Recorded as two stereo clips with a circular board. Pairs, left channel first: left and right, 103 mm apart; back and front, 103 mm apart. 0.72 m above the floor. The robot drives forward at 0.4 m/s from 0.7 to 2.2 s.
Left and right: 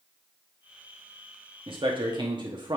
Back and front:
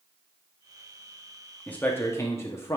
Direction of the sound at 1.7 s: 105° right.